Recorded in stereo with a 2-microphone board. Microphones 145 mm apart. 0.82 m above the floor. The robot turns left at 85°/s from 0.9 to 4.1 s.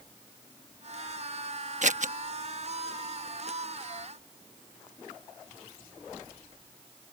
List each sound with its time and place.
1.8 s scissors: 55° right (ahead or behind)